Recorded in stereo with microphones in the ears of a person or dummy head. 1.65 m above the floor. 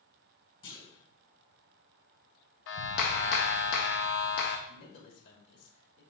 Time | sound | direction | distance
0.6 | a clunk | 35° left (ahead or behind) | 1.6 m
2.7 | a clap | 60° left (ahead or behind) | 0.7 m
4.7 | a man speaking | 70° left (ahead or behind) | 2 m